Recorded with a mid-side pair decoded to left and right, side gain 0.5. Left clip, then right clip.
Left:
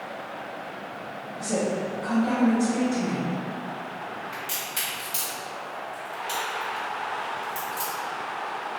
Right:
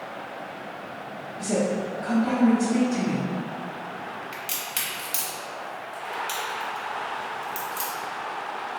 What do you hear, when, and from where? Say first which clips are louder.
1.4 s a woman speaking: right 1 dB; 55° right, 1.0 m
4.3 s a crack: even; 45° right, 1.1 m